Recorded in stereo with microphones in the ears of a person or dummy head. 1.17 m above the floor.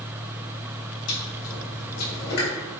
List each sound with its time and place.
1.1 s chewing: 70° left (ahead or behind), 1.3 m